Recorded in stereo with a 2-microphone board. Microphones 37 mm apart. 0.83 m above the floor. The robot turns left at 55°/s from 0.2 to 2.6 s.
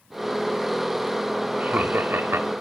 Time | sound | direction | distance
1.6 | laughter | 45° right | 1.6 m